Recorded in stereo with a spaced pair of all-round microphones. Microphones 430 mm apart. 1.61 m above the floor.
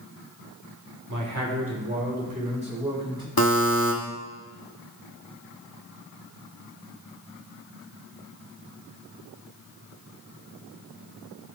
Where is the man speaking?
45° right (ahead or behind), 1.5 m; by 3.3 s 10° right (ahead or behind), 3 m.